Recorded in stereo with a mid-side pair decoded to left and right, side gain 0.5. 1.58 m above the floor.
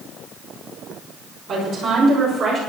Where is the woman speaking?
70° right, 7 m; by 2.6 s 65° right, 7 m.